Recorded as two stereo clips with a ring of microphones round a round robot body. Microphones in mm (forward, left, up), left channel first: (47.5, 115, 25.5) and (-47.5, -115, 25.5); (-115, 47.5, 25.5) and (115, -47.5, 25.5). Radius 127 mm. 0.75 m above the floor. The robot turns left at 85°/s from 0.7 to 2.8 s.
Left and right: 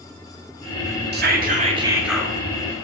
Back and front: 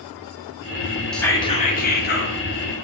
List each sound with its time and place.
1.1 s whispering: 115° right, 0.7 m; by 2.4 s 140° left, 0.7 m